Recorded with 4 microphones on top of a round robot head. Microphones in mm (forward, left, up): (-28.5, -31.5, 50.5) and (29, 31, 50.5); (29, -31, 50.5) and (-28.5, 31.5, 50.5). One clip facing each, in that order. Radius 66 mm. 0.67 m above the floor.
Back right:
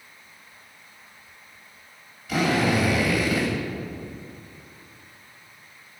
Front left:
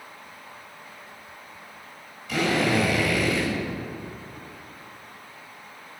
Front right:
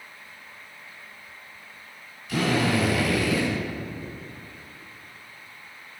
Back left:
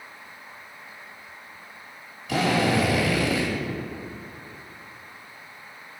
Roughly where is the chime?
No chime in this recording.